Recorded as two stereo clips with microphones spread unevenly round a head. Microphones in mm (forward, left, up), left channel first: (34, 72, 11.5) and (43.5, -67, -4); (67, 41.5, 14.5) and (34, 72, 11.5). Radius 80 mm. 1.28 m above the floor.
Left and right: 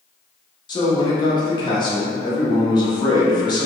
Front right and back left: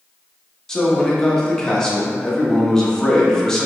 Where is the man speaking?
35° left, 1.0 m.